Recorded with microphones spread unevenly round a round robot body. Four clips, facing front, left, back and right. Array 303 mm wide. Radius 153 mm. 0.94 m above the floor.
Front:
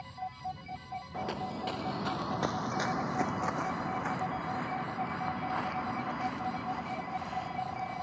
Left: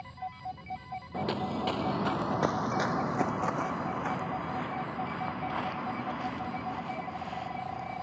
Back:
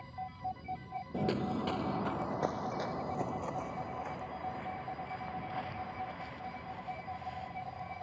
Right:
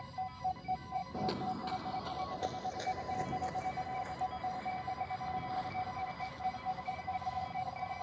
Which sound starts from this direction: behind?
Footsteps, at 1.1 s.